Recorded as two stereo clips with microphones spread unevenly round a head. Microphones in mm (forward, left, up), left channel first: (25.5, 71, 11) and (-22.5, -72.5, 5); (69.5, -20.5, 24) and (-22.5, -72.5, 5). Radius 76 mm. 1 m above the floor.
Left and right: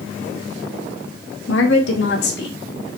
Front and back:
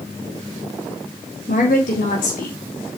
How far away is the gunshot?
I don't hear a gunshot.